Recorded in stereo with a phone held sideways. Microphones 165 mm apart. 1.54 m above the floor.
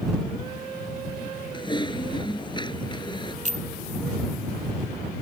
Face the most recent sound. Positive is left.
turn(degrees=-45)  # may be behind; listen again after turning